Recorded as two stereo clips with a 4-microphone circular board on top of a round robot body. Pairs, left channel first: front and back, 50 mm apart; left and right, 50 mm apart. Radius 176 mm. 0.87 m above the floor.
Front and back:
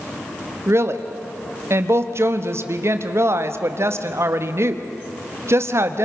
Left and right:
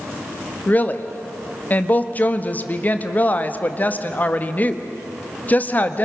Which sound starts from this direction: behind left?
A woman speaking, at 0.7 s.